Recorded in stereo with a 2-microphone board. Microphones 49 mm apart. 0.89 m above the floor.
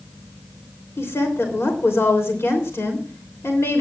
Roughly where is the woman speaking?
Left.